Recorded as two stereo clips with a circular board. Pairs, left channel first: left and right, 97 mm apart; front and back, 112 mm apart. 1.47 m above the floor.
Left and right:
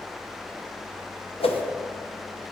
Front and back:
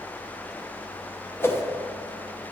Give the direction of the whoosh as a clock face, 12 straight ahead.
10 o'clock.